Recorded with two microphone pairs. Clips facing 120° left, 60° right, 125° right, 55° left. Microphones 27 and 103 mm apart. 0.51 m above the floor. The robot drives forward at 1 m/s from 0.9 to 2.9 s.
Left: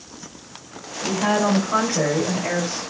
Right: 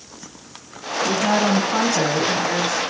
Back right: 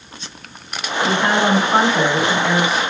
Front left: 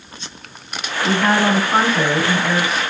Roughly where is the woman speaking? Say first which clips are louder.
Right 1 dB, front left 1 dB; behind left.